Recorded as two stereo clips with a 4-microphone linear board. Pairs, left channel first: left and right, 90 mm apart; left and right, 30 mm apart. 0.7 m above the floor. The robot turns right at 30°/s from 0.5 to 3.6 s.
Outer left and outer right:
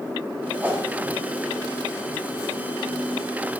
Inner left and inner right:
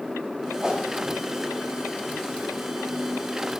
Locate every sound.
0.6 s a whoosh: 25° right (ahead or behind), 1.0 m; by 0.8 s 15° right (ahead or behind), 1.0 m